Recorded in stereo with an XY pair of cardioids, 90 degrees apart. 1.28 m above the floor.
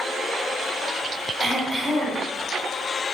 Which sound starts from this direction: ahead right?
Throat clearing, at 1.4 s.